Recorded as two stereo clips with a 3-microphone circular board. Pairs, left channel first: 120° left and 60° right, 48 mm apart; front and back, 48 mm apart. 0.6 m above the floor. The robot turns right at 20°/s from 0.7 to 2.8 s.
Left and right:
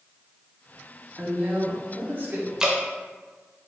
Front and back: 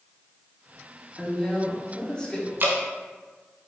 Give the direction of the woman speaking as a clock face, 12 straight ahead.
3 o'clock.